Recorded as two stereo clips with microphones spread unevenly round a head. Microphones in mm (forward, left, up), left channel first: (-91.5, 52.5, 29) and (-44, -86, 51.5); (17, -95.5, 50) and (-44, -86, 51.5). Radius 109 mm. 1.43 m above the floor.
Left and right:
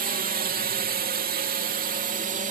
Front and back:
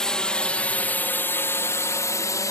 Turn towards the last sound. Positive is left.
turn(degrees=-30)